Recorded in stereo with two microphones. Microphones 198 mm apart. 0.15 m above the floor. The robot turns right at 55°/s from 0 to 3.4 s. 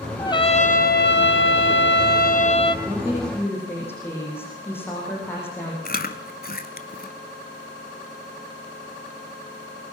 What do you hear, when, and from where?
0.2 s a trumpet: 15° left, 1.3 m; by 2.8 s 155° left, 1.3 m
2.9 s a woman speaking: 20° right, 8 m; by 5.8 s 10° left, 8 m
5.8 s chewing: 50° left (ahead or behind), 1.3 m